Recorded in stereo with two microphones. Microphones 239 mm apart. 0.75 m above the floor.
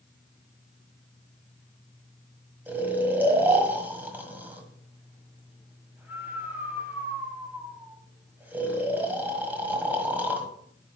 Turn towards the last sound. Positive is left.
turn(degrees=-5)  # may be behind; listen again after turning